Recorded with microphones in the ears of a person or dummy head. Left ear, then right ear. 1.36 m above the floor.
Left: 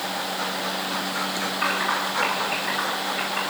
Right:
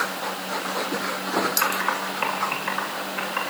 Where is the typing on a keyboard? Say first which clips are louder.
Left 1 dB; 50° right (ahead or behind), 7.5 m.